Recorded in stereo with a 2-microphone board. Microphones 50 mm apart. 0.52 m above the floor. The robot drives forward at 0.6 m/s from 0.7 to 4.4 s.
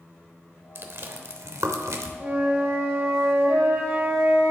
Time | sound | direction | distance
0.8 | chewing | 50° right (ahead or behind) | 0.9 m
2.2 | a flute | 60° right (ahead or behind) | 2.5 m